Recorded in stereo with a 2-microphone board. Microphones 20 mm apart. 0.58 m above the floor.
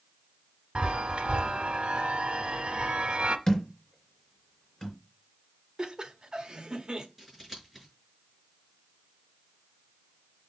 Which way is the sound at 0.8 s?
80° right.